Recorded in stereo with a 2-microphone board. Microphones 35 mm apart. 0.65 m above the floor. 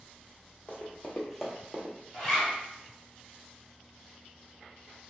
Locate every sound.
0.7 s running footsteps: 40° left (ahead or behind), 1.1 m; by 2.0 s 45° right (ahead or behind), 0.9 m
2.1 s a zipper: 10° left (ahead or behind), 1.7 m